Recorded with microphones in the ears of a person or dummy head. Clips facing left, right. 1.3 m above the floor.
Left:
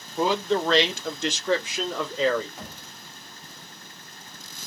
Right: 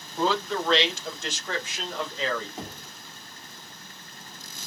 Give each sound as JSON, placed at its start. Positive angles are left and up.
{"t": 0.2, "sound": "a man speaking", "side_deg": 10, "distance_m": 0.7}
{"t": 2.6, "sound": "knocking", "side_deg": -20, "distance_m": 1.3}